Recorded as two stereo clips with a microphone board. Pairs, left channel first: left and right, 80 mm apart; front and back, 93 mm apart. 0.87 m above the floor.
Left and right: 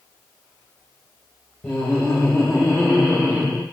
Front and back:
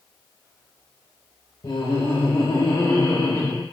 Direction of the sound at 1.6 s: 10° left.